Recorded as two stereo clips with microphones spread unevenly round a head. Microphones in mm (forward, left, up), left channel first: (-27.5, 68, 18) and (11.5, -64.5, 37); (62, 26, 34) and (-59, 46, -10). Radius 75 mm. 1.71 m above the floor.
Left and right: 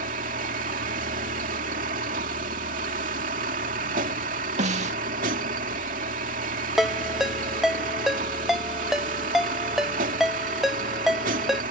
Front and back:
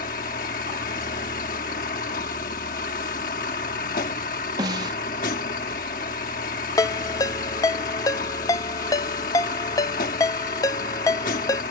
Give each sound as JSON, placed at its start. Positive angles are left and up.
{"t": 0.0, "sound": "a vehicle", "azimuth_deg": -35}
{"t": 4.6, "sound": "a snare drum", "azimuth_deg": -115}
{"t": 6.8, "sound": "a ringtone", "azimuth_deg": 5}